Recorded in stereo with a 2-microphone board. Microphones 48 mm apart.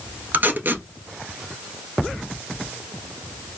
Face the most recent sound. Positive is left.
turn(degrees=-45)  # may be behind; listen again after turning